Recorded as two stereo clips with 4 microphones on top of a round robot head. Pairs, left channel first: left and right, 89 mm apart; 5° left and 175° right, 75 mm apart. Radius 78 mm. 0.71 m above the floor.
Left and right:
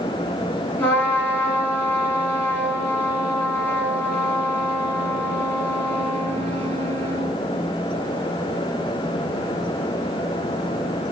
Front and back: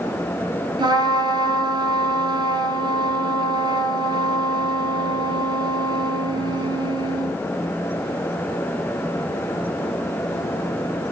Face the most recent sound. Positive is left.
turn(degrees=160)